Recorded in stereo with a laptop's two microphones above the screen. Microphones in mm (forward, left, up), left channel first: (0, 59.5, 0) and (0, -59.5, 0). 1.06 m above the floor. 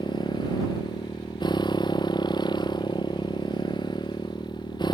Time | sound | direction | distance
0.0 | a motorcycle | 40° left (ahead or behind) | ?